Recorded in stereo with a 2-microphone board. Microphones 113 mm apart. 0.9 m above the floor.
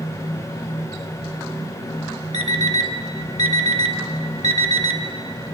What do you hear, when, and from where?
2.3 s an alarm clock: 75° right (ahead or behind), 1.5 m